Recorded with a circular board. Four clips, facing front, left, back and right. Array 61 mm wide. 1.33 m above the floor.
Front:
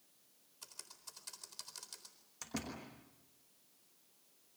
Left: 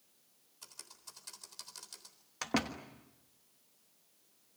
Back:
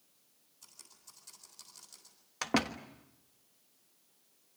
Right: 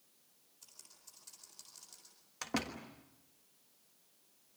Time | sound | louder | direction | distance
0.6 | typing on a keyboard | left 9 dB, front 4 dB | 45° left | 4 m
2.4 | a door slam | left 4 dB, back 12 dB | 165° left | 1.4 m